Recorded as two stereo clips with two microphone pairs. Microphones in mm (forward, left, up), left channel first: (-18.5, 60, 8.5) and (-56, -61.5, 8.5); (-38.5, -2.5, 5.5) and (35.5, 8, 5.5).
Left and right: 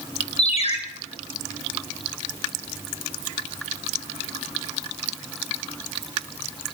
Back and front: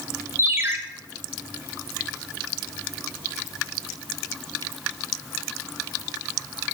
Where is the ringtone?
55° left, 1.2 m.